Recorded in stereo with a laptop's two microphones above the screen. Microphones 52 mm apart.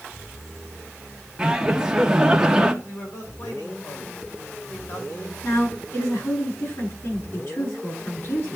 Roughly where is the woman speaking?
Left.